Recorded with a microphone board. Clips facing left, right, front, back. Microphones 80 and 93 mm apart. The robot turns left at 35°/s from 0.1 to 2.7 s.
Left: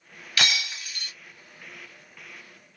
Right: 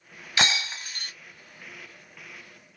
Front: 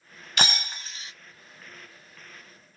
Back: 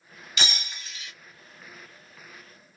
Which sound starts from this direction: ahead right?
Breaking glass, at 0.4 s.